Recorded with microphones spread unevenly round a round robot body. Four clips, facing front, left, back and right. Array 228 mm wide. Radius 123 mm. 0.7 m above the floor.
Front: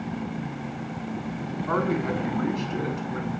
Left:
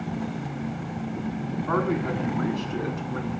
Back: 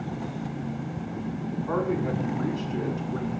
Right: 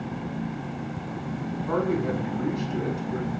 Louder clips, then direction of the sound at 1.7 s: Even, front 2 dB; 40° left.